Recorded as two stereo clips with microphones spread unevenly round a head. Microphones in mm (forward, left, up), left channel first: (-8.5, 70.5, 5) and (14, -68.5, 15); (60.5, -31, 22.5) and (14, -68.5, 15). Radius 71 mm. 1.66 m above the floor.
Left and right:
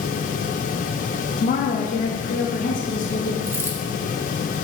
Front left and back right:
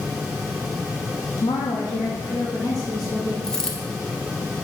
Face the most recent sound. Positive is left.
turn(degrees=-20)